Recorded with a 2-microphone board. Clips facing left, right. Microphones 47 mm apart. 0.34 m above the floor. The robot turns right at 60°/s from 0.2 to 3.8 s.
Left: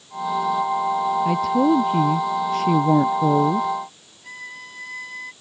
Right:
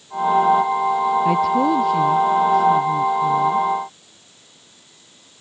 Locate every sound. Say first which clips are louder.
1.2 s a woman speaking: right 1 dB; 15° right; by 3.8 s 135° left
4.2 s a violin: left 16 dB; 80° left